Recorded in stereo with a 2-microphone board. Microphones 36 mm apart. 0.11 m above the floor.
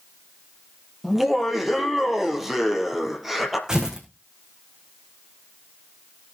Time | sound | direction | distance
1.0 | laughter | 5° right (ahead or behind) | 3 m
3.7 | tearing paper | 15° right (ahead or behind) | 3.5 m